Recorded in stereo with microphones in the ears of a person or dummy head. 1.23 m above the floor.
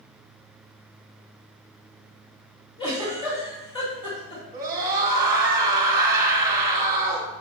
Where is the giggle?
25° left (ahead or behind), 2.5 m.